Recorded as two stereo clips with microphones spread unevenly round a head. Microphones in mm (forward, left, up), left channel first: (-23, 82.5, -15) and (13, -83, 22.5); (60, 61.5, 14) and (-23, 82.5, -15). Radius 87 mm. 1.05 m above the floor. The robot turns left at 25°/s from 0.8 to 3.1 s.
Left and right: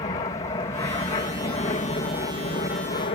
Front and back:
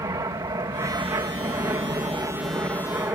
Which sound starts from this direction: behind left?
An aircraft, at 0.0 s.